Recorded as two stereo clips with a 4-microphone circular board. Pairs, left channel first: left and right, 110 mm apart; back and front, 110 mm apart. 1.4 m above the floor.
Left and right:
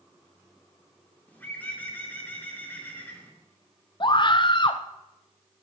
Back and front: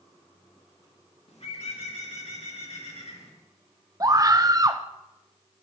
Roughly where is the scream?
Ahead left.